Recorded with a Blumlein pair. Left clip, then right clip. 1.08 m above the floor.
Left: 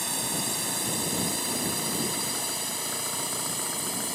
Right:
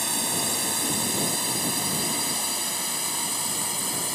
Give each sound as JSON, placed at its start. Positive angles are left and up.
{"t": 0.0, "sound": "a drone", "azimuth_deg": -10}